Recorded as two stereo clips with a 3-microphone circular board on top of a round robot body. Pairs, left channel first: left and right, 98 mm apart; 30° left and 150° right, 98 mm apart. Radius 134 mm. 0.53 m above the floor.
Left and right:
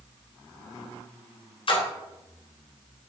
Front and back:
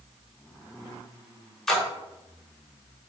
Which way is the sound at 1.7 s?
115° left.